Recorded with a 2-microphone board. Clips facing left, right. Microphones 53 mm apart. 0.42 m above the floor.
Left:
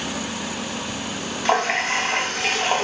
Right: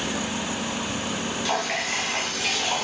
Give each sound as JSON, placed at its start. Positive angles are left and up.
{"t": 1.4, "sound": "a running tap", "side_deg": 45, "distance_m": 0.6}